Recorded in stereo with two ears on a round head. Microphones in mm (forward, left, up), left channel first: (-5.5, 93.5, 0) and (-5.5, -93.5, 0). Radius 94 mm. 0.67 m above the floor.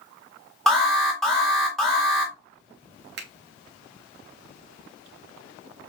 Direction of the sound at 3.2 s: 60° right (ahead or behind).